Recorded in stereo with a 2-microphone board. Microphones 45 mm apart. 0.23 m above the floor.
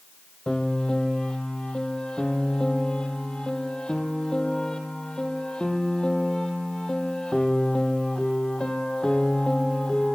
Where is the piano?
20° left (ahead or behind), 1.8 m.